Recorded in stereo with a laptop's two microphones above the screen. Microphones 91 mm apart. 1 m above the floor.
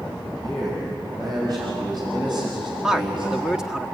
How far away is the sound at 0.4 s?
About 6.5 m.